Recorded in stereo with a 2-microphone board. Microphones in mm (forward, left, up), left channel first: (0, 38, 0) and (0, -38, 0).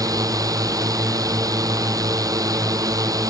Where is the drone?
50° right (ahead or behind).